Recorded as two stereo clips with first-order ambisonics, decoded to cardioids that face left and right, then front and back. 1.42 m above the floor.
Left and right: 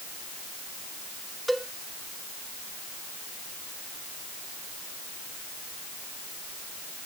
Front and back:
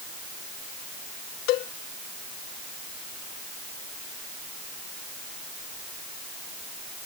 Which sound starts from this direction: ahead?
A cowbell, at 1.5 s.